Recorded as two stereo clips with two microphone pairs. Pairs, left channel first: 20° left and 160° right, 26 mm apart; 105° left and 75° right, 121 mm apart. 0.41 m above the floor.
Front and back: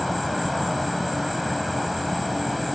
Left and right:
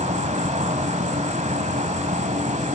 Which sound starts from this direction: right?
An insect, at 0.0 s.